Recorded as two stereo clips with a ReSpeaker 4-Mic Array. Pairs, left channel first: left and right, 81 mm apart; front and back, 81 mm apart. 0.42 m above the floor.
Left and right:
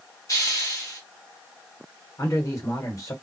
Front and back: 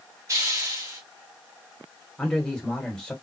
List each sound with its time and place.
0.3 s a hiss: 135° left, 2.0 m
2.2 s a man speaking: 80° left, 1.7 m